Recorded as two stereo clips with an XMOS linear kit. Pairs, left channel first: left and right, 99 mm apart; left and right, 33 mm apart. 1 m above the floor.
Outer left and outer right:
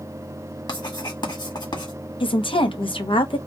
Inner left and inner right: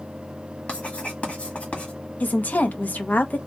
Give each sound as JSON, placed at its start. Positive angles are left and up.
{"t": 0.7, "sound": "writing", "side_deg": 50, "distance_m": 1.5}
{"t": 2.2, "sound": "a woman speaking", "side_deg": 60, "distance_m": 0.7}